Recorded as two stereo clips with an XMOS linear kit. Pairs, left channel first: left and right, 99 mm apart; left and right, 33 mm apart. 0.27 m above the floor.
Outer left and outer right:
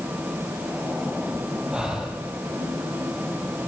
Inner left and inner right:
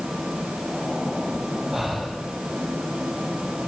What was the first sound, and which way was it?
Breathing, 10° right (ahead or behind).